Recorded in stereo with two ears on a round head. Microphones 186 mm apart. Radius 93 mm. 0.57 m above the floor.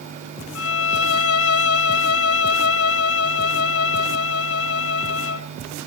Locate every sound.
0.6 s a violin: 75° left (ahead or behind), 0.6 m